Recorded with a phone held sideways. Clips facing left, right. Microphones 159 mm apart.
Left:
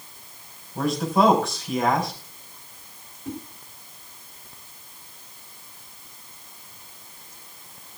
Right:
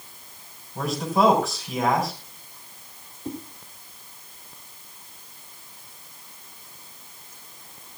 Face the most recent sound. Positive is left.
turn(degrees=-35)  # may be behind; listen again after turning